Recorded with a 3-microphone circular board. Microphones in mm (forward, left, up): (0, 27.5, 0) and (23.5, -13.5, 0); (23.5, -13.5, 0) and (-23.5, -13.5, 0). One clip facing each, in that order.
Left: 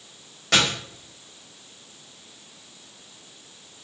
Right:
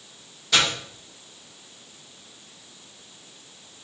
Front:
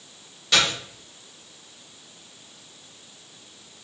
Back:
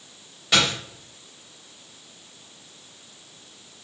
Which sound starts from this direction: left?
A dropped coin, at 0.5 s.